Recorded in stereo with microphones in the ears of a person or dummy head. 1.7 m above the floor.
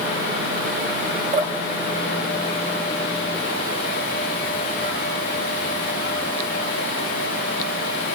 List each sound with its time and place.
1.3 s dripping: 35° right (ahead or behind), 3.5 m